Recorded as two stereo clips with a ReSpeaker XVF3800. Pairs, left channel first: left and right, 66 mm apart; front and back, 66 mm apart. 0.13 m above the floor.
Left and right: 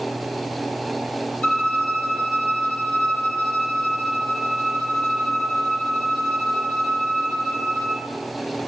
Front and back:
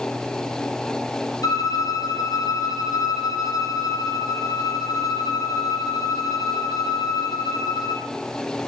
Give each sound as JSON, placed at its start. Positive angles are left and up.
{"t": 1.4, "sound": "a violin", "azimuth_deg": 20, "distance_m": 3.5}